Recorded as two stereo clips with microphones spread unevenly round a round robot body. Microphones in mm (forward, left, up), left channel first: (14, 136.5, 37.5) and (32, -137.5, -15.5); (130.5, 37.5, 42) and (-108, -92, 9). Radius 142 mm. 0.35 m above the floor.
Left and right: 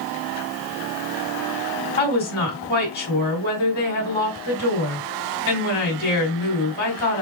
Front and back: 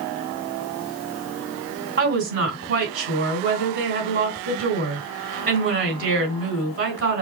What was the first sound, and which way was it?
A woman speaking, 155° left.